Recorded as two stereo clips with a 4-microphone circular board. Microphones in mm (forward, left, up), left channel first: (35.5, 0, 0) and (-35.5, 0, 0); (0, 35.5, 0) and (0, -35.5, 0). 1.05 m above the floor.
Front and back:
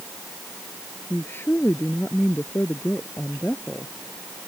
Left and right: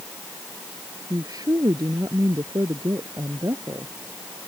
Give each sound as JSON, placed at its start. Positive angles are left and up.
{"t": 1.1, "sound": "a woman speaking", "azimuth_deg": -55}